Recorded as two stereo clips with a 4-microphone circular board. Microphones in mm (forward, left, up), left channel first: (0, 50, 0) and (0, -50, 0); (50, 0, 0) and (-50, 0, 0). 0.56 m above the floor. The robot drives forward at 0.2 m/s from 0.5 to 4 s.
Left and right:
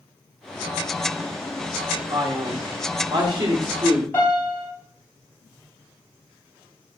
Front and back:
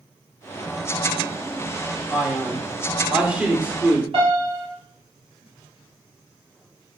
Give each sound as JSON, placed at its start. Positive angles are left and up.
{"t": 2.1, "sound": "a man speaking", "azimuth_deg": -95, "distance_m": 1.7}
{"t": 4.1, "sound": "a piano", "azimuth_deg": 155, "distance_m": 4.0}